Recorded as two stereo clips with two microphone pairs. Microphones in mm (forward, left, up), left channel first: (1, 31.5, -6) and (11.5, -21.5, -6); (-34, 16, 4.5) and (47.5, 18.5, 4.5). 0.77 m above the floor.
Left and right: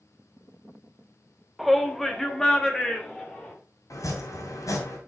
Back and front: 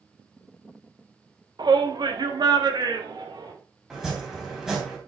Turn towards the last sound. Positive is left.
turn(degrees=85)